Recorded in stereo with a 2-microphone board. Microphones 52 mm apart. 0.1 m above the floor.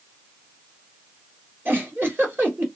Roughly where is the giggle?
Right.